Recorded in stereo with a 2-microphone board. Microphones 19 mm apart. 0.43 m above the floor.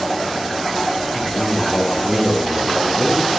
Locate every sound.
1.1 s a man speaking: 25° right (ahead or behind), 3.5 m